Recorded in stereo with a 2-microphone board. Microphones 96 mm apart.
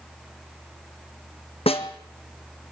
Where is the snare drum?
80° left, 1.7 m.